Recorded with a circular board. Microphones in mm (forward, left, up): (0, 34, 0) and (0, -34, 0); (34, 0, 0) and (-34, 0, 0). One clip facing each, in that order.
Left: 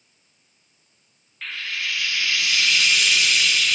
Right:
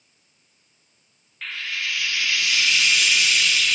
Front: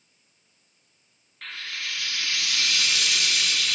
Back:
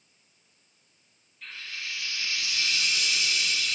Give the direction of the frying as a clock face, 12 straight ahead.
12 o'clock.